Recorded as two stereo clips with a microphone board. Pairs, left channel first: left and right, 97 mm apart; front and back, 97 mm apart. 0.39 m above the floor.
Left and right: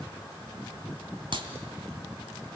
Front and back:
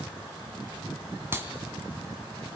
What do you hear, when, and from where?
1.3 s a clap: 115° right, 3 m